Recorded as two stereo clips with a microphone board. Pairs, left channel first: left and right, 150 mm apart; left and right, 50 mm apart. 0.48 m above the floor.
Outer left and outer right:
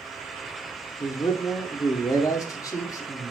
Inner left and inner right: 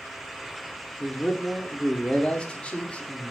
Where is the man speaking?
20° left (ahead or behind), 0.7 m.